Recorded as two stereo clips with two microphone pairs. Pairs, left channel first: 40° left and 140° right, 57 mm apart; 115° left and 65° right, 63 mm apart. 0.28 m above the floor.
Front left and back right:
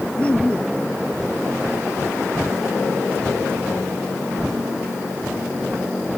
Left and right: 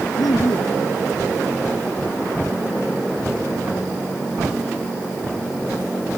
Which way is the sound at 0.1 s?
105° left.